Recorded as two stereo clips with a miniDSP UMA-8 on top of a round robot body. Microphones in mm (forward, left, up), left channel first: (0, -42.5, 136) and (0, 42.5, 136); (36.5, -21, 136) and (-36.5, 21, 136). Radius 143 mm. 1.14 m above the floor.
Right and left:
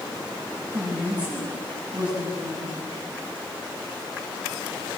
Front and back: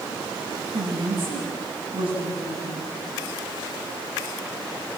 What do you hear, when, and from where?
0.7 s a woman speaking: 165° left, 9 m